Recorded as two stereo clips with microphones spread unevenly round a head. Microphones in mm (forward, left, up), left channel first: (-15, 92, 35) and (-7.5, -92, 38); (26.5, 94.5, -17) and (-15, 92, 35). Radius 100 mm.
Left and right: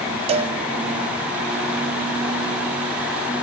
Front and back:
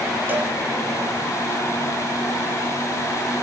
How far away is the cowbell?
About 1.2 m.